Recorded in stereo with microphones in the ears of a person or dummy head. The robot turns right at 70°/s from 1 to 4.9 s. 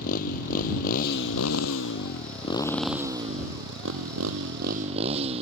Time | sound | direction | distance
0.0 | a motorcycle | 45° left (ahead or behind) | ?